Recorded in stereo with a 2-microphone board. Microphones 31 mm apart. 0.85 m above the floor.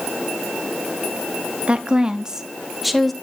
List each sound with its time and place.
1.7 s a woman speaking: 35° right (ahead or behind), 1.2 m; by 3.1 s 5° left (ahead or behind), 1.2 m